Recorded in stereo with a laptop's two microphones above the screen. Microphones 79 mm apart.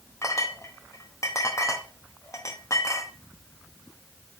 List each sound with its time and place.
0.2 s a clink: 40° left (ahead or behind), 0.9 m